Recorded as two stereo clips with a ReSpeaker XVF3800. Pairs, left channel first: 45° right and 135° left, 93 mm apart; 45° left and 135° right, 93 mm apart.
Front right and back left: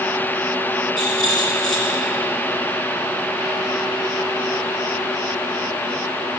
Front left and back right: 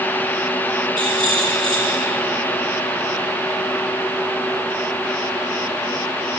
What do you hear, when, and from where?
1.0 s a rattle: straight ahead, 5.5 m